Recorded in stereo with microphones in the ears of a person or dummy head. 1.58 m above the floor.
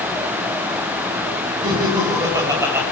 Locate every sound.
1.6 s laughter: 25° right (ahead or behind), 8 m; by 2.8 s 10° right (ahead or behind), 8.5 m